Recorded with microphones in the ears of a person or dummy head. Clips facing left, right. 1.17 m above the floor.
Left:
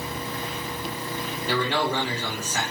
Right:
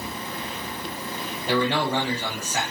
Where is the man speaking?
55° right (ahead or behind), 1.5 m.